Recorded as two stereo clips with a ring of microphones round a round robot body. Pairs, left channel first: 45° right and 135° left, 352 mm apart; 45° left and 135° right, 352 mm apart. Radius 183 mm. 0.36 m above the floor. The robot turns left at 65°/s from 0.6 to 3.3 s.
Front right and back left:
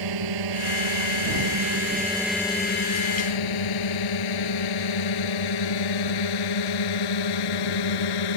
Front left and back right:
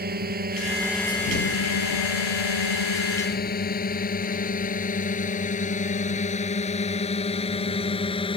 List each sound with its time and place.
0.0 s a drone: 160° left; by 8.4 s 30° right